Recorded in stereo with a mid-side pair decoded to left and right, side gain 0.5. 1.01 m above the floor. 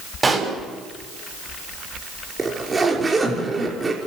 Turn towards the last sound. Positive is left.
turn(degrees=-25)